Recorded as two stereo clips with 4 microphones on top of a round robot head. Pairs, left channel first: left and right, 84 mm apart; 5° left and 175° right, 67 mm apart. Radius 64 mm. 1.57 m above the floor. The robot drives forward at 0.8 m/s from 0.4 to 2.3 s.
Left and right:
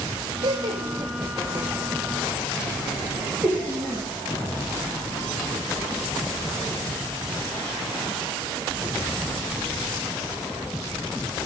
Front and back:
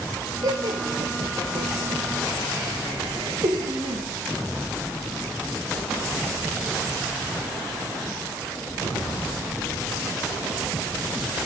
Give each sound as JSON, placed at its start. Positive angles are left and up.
{"t": 0.4, "sound": "laughter", "azimuth_deg": -135, "distance_m": 1.4}